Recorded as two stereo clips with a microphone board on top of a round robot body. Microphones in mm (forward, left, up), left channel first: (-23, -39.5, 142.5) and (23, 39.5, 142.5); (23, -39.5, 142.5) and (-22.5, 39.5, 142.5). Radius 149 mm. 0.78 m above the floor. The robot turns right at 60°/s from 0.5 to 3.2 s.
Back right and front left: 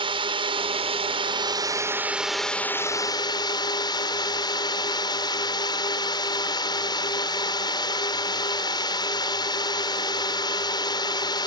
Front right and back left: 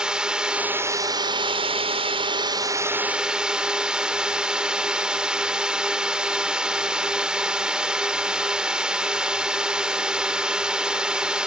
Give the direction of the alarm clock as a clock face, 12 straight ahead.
No alarm clock in this recording.